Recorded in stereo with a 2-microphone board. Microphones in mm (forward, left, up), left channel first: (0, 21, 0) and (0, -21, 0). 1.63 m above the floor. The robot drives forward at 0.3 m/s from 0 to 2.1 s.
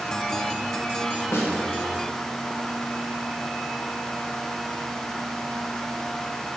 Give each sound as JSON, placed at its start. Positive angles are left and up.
{"t": 1.3, "sound": "a snare drum", "side_deg": 85, "distance_m": 1.6}